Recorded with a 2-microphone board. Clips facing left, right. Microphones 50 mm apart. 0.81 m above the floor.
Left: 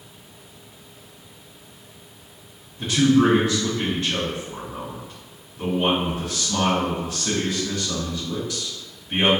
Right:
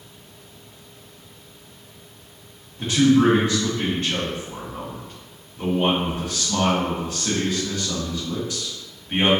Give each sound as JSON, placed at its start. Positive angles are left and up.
{"t": 2.8, "sound": "a man speaking", "side_deg": -35, "distance_m": 1.3}